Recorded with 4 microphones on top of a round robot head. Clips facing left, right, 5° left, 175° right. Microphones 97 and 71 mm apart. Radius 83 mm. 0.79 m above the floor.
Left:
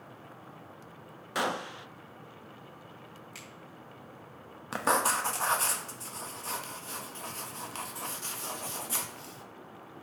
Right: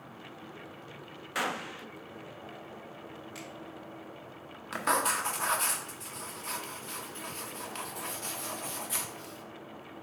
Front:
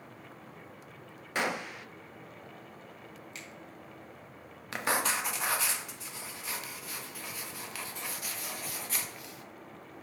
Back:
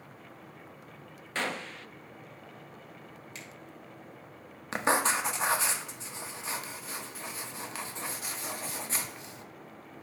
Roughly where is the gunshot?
Ahead left.